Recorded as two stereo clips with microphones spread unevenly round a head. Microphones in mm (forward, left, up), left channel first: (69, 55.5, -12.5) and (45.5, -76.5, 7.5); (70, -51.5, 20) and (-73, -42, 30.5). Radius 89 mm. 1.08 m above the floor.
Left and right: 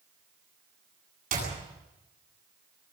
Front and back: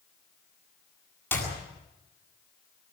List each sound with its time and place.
1.3 s a clap: 80° right, 9 m